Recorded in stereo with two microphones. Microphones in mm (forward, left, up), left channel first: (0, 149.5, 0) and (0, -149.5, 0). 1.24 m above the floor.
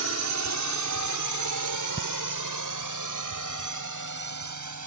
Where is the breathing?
30° left (ahead or behind).